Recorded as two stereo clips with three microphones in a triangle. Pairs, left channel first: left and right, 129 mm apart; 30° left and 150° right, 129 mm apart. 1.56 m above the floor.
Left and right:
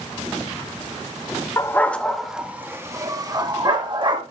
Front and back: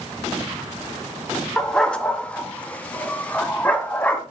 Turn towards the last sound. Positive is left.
turn(degrees=-50)